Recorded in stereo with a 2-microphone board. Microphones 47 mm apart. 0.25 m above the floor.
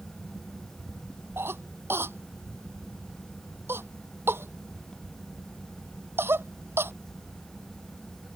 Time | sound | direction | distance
1.4 | a cough | 60° right (ahead or behind) | ?